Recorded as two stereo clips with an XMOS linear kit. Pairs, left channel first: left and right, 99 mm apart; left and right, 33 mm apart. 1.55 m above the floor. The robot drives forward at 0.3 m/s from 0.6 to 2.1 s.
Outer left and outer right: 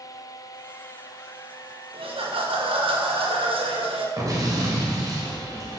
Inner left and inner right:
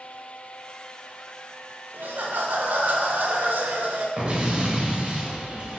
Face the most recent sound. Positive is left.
turn(degrees=-35)  # may be behind; listen again after turning